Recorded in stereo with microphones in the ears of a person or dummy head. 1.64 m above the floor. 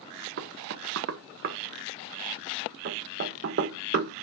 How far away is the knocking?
About 0.7 m.